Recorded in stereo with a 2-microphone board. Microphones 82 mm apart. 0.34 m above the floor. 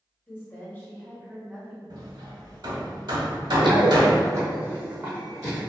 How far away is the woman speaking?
About 1.2 m.